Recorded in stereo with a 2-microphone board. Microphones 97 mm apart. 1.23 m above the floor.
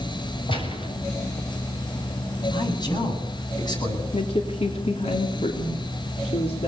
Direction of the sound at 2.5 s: 45° left (ahead or behind).